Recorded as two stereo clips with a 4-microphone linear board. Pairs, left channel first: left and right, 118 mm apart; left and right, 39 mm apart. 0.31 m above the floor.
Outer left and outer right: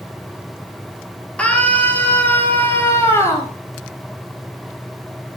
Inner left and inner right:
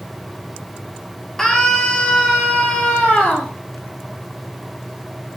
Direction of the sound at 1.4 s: 10° left (ahead or behind).